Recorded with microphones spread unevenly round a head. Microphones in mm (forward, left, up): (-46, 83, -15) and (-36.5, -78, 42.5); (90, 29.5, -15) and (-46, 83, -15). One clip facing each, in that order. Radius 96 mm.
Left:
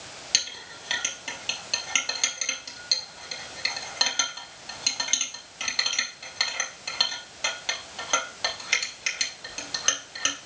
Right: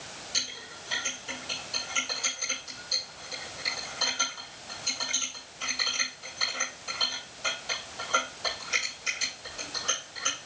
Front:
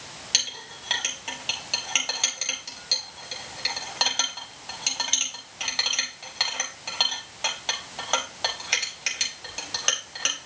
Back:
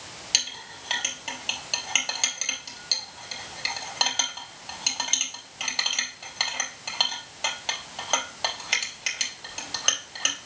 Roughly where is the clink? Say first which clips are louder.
Left 1 dB, even; left.